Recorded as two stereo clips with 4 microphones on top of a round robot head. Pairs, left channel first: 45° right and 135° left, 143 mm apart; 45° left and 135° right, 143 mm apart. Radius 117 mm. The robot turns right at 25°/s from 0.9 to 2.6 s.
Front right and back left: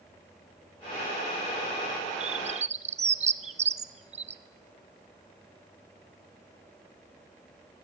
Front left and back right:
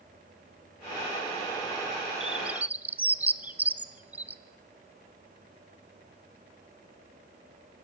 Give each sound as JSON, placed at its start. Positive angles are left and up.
{"t": 2.2, "sound": "a bird", "azimuth_deg": 140, "distance_m": 0.9}